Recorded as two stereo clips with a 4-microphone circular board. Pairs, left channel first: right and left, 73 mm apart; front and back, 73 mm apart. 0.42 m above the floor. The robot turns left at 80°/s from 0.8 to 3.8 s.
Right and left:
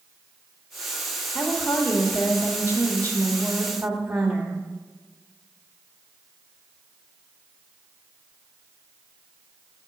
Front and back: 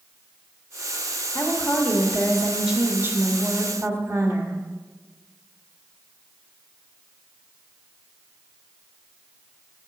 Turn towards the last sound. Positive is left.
turn(degrees=160)